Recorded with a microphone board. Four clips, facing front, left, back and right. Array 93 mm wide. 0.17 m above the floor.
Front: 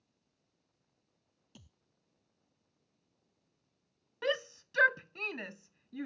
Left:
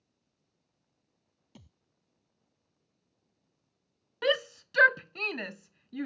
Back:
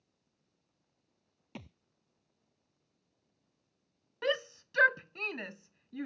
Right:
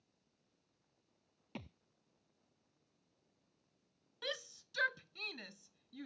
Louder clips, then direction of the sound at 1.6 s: Right 8 dB, back 13 dB; 145° right.